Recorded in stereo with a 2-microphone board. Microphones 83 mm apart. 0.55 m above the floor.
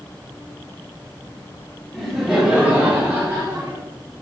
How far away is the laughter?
About 1.5 m.